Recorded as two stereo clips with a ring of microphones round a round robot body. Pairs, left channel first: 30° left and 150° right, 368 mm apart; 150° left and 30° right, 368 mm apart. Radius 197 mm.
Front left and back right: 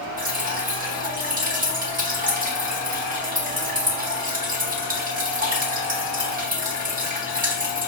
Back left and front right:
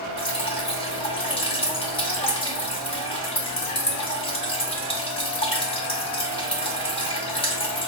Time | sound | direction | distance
0.2 | dripping | 160° right | 1.0 m